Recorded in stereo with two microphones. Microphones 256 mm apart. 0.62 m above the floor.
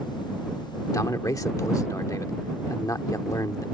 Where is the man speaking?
10° left (ahead or behind).